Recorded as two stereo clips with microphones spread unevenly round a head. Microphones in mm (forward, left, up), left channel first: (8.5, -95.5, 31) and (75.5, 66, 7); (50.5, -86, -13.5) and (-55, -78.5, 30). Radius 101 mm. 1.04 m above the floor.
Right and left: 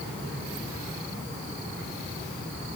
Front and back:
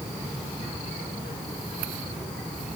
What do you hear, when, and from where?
Only background noise.